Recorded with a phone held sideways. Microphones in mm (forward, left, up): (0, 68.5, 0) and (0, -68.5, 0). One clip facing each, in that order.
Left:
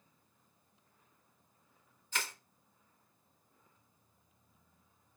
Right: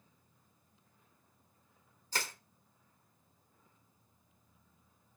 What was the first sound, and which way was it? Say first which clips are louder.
Crushing: right 1 dB; 35° right (ahead or behind).